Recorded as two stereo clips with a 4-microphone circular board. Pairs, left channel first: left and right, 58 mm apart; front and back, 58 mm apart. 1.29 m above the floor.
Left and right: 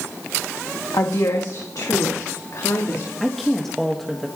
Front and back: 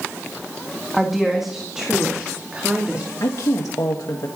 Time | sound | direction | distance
0.9 | a woman speaking | 90° left | 1.9 m
3.2 | a woman speaking | 5° left | 1.6 m